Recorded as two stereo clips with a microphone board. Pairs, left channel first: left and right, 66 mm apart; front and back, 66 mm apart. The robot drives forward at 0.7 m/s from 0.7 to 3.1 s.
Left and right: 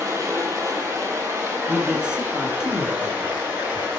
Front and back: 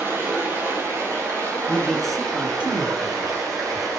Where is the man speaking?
35° right, 1.1 m; by 3.9 s 160° right, 1.3 m.